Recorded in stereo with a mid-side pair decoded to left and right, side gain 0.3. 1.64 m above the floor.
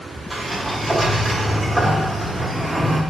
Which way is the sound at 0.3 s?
5° right.